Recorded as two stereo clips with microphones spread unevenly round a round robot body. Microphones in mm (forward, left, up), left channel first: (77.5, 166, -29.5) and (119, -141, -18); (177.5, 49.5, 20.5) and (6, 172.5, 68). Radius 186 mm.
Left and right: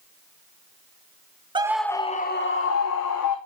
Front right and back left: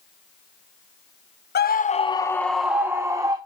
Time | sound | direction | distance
1.6 | a scream | 5° right | 0.9 m